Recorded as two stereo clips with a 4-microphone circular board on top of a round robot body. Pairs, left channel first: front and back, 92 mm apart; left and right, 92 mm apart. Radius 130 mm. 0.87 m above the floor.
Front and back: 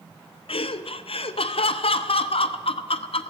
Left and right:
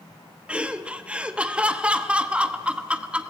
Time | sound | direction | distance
0.5 | laughter | 10° right | 1.2 m